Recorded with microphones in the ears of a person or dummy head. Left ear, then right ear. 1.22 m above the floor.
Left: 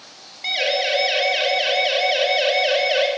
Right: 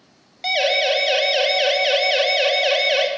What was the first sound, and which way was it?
A siren, 40° right (ahead or behind).